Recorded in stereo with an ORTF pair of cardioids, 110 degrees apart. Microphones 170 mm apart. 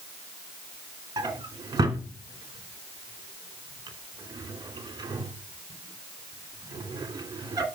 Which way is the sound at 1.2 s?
25° right.